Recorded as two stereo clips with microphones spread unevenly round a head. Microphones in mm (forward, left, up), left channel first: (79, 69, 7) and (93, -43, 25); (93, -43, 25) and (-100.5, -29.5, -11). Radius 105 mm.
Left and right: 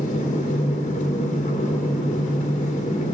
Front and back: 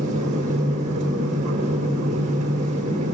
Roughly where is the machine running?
Behind left.